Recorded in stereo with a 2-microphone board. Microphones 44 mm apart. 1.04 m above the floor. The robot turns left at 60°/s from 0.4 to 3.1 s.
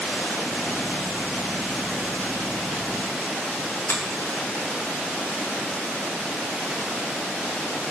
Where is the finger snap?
70° left (ahead or behind), 0.9 m.